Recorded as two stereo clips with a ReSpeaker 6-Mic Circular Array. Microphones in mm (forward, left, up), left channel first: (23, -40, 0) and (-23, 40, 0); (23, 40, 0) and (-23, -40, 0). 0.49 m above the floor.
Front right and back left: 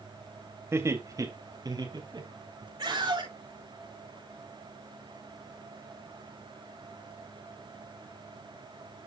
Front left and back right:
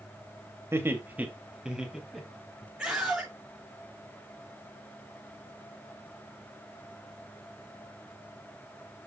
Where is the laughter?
Straight behind, 2.5 m; by 2.7 s 145° left, 4 m.